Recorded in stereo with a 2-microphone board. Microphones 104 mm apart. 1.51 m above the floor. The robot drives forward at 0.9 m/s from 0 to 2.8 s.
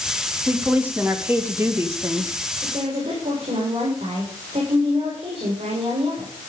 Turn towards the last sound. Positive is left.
turn(degrees=-85)